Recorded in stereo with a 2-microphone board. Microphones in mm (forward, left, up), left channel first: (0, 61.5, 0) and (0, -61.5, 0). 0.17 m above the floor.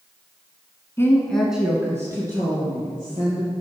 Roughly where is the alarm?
No alarm in this recording.